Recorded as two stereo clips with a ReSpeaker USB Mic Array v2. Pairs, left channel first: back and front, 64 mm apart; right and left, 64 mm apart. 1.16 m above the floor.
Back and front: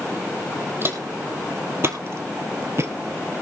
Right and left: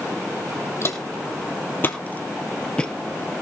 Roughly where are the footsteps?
Ahead right.